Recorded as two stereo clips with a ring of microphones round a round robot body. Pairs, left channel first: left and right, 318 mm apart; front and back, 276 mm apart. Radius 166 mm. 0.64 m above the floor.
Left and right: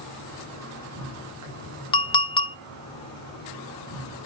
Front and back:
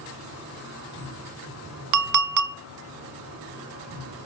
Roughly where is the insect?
Ahead right.